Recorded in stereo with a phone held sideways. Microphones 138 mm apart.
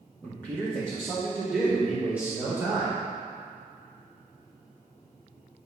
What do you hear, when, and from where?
0.2 s a man speaking: 10° right (ahead or behind), 1.9 m; by 2.9 s 20° right (ahead or behind), 4 m